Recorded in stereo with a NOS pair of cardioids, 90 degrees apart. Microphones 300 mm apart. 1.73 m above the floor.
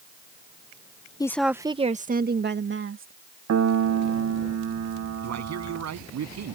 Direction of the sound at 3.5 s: 60° right.